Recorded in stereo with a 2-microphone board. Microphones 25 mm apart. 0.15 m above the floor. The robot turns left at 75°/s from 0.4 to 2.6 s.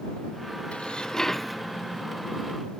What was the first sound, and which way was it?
Dishes clattering, 60° left.